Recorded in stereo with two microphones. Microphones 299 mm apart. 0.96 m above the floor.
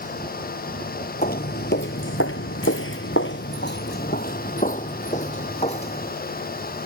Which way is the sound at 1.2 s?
30° left (ahead or behind).